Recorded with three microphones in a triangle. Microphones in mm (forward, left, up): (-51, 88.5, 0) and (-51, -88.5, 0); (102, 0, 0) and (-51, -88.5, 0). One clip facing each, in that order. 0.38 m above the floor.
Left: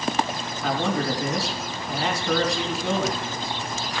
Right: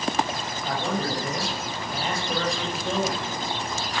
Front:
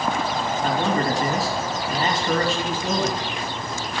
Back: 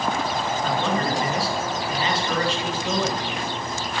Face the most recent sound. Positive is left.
turn(degrees=70)